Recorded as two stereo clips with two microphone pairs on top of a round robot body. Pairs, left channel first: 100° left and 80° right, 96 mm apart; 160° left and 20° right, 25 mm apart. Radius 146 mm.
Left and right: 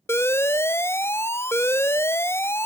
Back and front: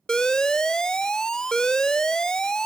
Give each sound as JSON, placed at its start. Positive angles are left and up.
{"t": 0.1, "sound": "an alarm", "azimuth_deg": 130, "distance_m": 0.5}